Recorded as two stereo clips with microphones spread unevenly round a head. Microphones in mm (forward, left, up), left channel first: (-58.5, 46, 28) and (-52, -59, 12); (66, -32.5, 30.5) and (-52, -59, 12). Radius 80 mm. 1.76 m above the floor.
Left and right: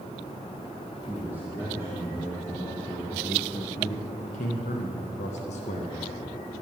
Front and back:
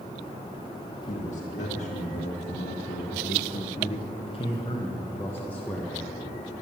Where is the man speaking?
15° left, 2 m; by 6.0 s 100° left, 1.8 m.